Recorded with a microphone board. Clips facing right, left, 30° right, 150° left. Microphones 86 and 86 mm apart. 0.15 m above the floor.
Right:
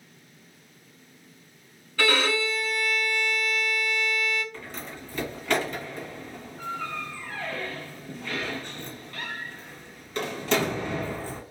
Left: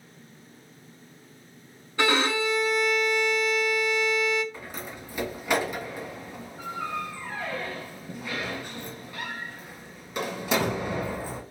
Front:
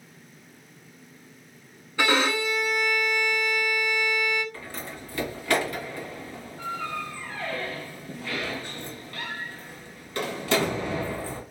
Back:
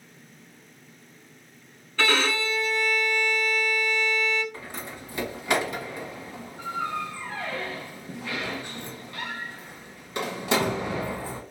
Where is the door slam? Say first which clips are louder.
Even, even; 140° left, 1.2 m.